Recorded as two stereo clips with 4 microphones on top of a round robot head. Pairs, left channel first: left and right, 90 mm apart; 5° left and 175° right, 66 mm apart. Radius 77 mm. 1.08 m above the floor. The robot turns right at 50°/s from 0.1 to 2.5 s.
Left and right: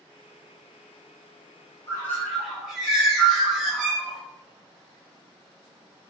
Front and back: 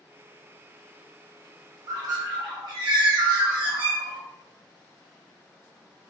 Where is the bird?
155° left, 1.2 m; by 4.2 s 175° right, 1.2 m.